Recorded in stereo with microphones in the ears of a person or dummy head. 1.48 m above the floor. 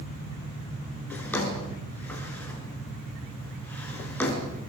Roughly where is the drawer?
Left.